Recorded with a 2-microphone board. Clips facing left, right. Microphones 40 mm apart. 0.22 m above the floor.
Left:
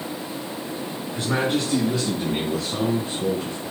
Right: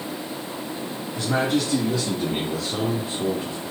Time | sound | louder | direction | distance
1.1 | a man speaking | right 1 dB | 20° left (ahead or behind) | 2 m